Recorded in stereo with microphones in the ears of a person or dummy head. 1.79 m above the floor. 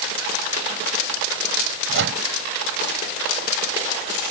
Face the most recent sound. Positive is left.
turn(degrees=-65)  # may be behind; listen again after turning